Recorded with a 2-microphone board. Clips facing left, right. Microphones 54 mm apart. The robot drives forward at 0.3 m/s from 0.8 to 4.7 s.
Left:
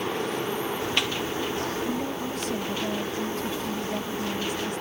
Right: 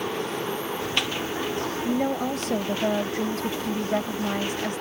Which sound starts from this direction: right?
A woman speaking, at 1.9 s.